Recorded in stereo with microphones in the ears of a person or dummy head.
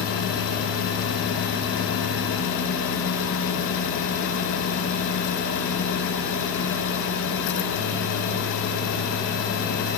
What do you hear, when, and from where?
Only background noise.